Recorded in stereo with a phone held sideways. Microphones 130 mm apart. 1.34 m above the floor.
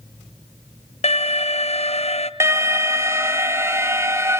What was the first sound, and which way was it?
An alarm, 50° left (ahead or behind).